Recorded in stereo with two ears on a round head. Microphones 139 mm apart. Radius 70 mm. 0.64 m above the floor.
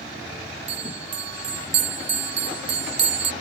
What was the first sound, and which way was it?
A bell, 75° right (ahead or behind).